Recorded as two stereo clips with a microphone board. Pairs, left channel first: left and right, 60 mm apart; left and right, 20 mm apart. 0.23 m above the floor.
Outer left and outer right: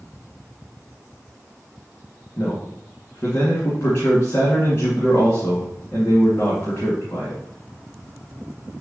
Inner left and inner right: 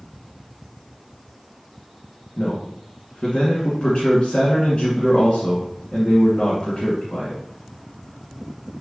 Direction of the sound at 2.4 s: 50° left (ahead or behind).